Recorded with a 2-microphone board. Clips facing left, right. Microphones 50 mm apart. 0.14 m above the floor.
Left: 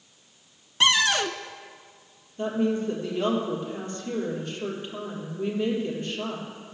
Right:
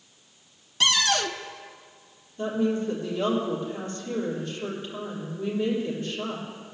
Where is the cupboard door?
25° left (ahead or behind), 0.5 m.